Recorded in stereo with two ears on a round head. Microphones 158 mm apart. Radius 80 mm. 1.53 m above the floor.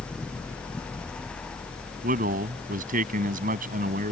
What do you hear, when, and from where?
2.0 s a man speaking: 50° right (ahead or behind)